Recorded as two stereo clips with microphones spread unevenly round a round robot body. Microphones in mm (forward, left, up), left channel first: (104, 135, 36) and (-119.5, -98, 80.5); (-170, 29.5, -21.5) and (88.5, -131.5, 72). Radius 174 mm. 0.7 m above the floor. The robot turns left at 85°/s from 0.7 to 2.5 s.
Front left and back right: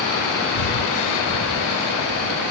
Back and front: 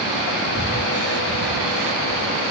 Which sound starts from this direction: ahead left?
Breathing, at 0.6 s.